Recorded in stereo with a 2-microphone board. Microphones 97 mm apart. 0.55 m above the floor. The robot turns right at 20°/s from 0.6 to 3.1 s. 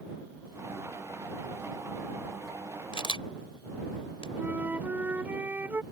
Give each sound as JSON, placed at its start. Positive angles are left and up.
{"t": 2.9, "sound": "a camera shutter", "side_deg": 65}
{"t": 4.4, "sound": "a flute", "side_deg": -20}